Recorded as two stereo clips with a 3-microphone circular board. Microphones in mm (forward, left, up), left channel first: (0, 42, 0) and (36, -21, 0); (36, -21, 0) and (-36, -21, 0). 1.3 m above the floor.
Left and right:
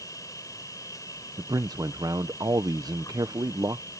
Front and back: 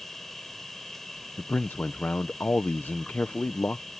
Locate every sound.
0.0 s an insect: 85° left
1.4 s a man speaking: 60° right